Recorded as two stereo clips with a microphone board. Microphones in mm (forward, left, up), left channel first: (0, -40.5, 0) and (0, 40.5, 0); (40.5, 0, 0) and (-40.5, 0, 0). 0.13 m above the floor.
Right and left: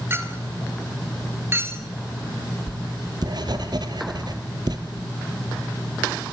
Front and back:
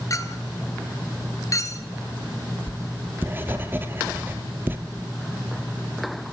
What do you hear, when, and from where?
0.1 s a clink: 35° left, 1.7 m
2.7 s writing: 115° left, 1.7 m